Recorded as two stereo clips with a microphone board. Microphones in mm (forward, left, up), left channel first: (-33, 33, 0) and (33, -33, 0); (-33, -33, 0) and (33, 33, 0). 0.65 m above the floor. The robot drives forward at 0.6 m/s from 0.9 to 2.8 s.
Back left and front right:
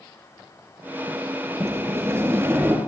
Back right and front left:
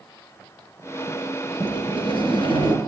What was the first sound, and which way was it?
A sliding door, 105° right.